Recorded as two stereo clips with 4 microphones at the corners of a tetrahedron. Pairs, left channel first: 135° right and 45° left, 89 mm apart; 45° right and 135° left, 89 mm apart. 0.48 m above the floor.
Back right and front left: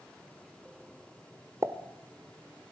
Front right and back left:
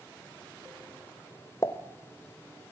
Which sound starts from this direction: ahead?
A pop, at 1.6 s.